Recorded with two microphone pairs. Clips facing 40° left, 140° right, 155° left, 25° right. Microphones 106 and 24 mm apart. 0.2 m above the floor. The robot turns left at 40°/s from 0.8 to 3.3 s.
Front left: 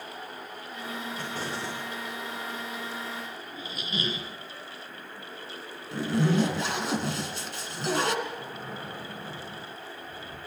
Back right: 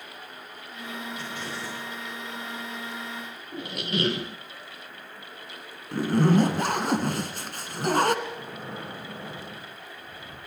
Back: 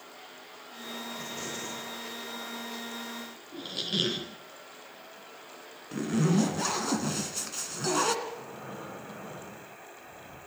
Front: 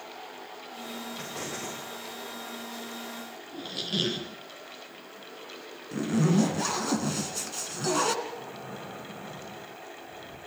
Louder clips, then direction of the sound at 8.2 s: Back right 1 dB, front 1 dB; 135° right.